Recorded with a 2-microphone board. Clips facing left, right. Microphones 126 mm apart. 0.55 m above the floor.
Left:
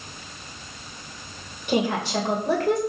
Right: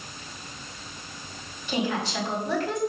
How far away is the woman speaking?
About 2.5 m.